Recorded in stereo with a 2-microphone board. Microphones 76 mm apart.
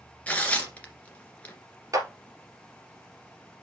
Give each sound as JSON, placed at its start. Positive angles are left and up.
{"t": 0.3, "sound": "tearing paper", "side_deg": 20, "distance_m": 1.8}
{"t": 1.9, "sound": "a clap", "side_deg": -45, "distance_m": 2.0}